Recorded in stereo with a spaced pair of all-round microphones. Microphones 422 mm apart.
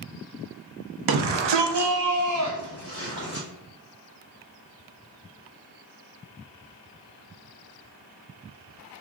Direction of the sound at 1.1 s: 60° right (ahead or behind).